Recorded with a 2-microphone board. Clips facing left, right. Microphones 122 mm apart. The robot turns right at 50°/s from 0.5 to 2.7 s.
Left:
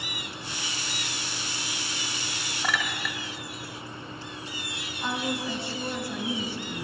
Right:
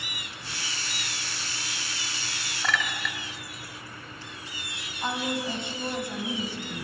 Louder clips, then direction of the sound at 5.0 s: Right 1 dB; 25° right (ahead or behind).